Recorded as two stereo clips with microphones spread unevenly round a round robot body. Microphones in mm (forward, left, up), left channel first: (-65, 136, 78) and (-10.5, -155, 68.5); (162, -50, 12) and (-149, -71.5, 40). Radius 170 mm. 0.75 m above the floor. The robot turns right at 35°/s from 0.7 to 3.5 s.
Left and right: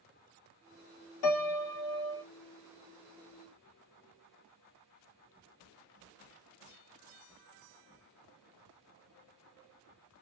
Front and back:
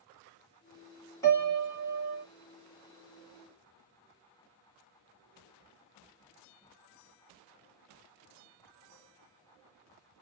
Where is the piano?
85° left, 0.9 m; by 2.2 s 120° left, 0.9 m.